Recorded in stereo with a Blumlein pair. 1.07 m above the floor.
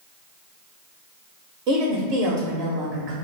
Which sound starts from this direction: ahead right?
A woman speaking, at 1.7 s.